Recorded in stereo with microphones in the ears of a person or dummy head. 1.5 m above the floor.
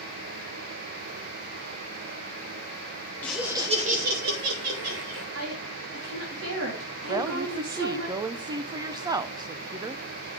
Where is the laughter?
10° left (ahead or behind), 1.2 m; by 5.2 s 85° right, 2.5 m.